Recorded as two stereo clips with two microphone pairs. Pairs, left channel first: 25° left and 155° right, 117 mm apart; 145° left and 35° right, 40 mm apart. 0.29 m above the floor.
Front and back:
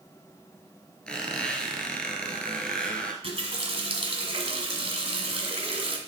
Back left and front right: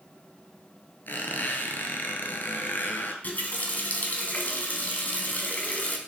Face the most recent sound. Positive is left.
turn(degrees=180)